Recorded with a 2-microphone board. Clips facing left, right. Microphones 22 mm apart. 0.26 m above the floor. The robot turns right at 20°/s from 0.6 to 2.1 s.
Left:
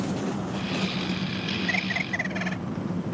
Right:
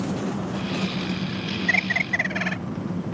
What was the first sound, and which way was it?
An engine running, 30° right.